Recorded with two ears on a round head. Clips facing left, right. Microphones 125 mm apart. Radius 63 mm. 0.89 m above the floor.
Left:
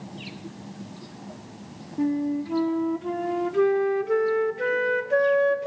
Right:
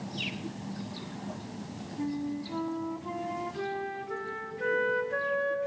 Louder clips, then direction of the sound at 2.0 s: Left 9 dB; 70° left (ahead or behind).